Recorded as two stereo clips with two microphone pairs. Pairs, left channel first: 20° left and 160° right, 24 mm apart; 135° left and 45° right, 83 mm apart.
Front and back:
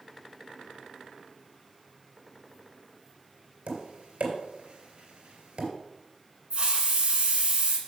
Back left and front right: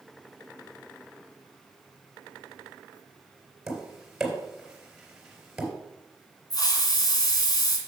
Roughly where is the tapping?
Behind right.